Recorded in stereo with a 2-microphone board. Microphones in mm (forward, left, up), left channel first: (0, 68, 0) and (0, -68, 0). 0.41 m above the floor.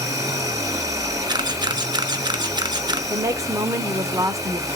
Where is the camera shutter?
35° right (ahead or behind), 0.7 m.